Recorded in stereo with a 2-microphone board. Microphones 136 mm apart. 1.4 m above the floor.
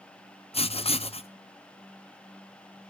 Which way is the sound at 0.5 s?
45° left (ahead or behind).